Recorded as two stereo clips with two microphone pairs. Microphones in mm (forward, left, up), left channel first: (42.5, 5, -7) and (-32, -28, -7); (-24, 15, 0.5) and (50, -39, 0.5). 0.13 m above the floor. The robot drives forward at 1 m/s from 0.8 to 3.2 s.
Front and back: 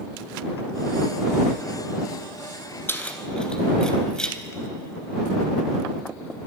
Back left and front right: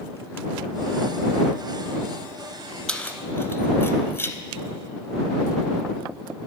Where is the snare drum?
I don't hear a snare drum.